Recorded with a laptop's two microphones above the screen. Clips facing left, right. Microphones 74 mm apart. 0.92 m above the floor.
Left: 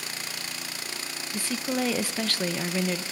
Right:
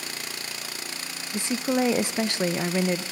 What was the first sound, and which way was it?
A woman speaking, 20° right (ahead or behind).